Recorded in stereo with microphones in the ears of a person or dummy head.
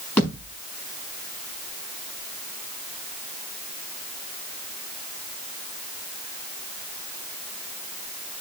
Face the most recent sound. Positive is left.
turn(degrees=10)  # may be behind; listen again after turning